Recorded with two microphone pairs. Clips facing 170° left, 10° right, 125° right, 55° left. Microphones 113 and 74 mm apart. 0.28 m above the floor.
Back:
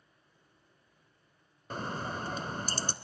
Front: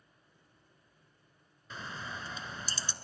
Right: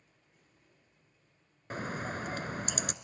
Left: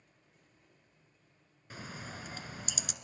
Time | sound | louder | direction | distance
1.7 | a bird | back 7 dB, right 9 dB | 155° right | 0.9 m